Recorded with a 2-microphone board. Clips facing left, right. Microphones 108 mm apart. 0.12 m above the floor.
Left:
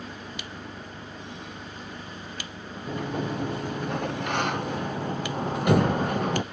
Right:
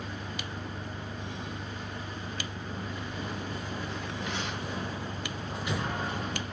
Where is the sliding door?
60° left (ahead or behind).